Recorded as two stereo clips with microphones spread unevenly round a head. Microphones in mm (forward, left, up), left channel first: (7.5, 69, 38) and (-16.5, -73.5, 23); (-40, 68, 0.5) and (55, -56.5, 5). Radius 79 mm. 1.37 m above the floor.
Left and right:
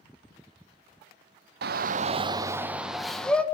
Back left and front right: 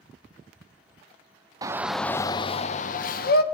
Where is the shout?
120° right, 0.5 m; by 3.4 s 160° left, 1.0 m.